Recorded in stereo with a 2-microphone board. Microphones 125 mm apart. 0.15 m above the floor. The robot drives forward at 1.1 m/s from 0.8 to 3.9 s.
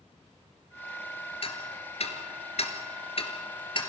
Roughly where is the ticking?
Left.